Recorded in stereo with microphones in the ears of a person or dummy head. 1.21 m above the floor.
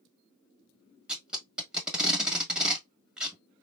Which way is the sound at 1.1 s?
5° right (ahead or behind).